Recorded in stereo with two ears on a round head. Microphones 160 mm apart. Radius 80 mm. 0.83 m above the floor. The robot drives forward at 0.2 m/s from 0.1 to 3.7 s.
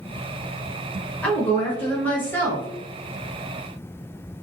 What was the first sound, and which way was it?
A woman speaking, 10° left (ahead or behind).